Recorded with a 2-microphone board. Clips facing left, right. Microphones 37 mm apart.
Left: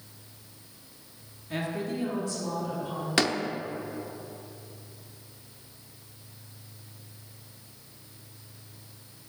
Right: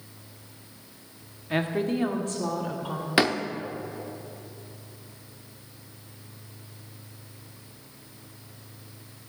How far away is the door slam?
About 0.7 m.